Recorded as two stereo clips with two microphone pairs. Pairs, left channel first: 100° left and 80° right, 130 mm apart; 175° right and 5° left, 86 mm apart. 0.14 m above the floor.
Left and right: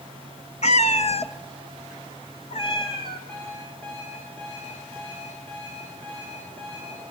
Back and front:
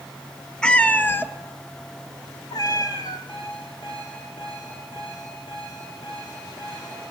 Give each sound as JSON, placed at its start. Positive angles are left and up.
{"t": 0.6, "sound": "a cat meowing", "azimuth_deg": 110, "distance_m": 0.7}
{"t": 3.3, "sound": "an alarm clock", "azimuth_deg": 175, "distance_m": 9.0}